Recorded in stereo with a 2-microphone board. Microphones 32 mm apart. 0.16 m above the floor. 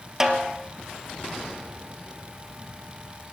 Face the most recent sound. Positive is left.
turn(degrees=-15)  # may be behind; listen again after turning